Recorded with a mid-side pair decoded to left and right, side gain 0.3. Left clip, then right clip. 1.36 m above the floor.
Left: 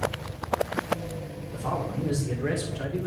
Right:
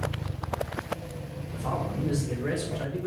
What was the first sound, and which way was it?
A man speaking, 65° left.